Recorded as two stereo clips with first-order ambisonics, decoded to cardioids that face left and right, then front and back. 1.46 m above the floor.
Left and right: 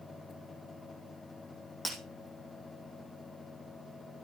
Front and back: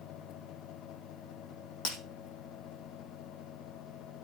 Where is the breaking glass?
15° left, 3 m.